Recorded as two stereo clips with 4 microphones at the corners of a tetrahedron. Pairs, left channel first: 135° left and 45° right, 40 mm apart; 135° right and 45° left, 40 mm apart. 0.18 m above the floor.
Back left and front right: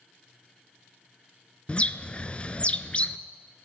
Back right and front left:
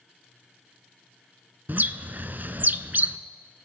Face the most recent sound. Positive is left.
turn(degrees=75)